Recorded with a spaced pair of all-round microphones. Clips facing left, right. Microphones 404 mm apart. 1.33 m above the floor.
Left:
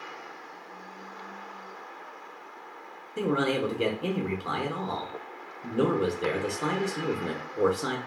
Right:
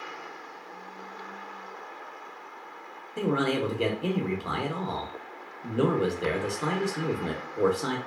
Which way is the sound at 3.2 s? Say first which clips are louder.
Even; centre (ahead or behind).